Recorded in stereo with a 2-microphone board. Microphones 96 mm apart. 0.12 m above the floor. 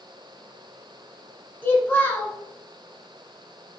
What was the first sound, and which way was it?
A child speaking, 20° left (ahead or behind).